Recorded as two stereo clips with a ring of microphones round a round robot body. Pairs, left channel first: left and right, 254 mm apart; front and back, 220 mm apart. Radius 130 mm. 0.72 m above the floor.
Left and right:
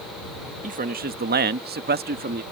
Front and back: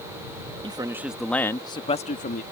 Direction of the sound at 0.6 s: 125° right.